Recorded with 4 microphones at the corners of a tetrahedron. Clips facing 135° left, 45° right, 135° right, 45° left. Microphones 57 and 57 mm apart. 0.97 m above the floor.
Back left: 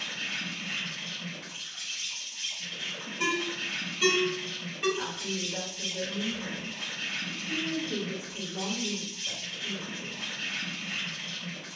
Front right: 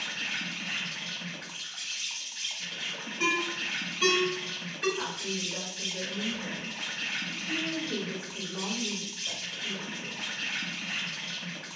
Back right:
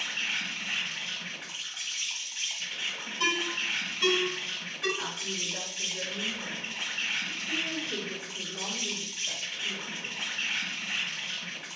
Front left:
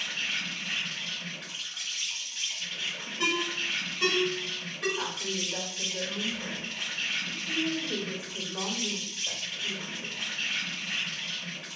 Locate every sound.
0.0 s an insect: 60° right, 1.0 m
3.2 s a ringtone: 50° left, 1.8 m
5.0 s a woman speaking: 35° left, 1.9 m